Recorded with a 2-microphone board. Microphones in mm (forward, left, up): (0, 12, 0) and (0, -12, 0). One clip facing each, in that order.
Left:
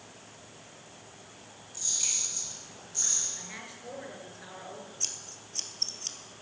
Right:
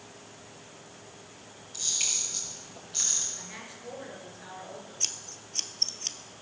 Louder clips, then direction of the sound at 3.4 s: Even; 5° left (ahead or behind).